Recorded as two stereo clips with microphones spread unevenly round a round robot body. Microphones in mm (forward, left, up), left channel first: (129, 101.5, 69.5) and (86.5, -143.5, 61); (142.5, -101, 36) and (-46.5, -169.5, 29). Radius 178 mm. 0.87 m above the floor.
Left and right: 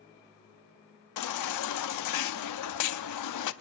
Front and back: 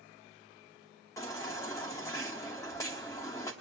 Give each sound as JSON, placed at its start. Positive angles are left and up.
{"t": 1.2, "sound": "a baby crying", "azimuth_deg": 100, "distance_m": 0.8}